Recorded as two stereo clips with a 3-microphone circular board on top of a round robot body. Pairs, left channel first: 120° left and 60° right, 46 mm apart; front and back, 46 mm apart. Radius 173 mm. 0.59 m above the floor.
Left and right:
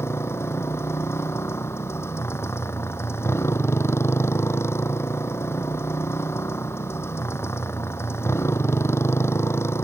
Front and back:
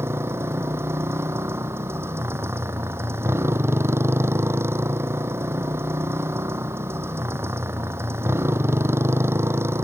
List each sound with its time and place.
0.0 s a motorcycle: 150° left